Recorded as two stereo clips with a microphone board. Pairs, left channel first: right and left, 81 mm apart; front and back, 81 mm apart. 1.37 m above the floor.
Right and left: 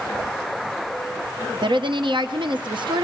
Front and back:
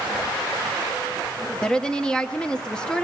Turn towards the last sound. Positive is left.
turn(degrees=80)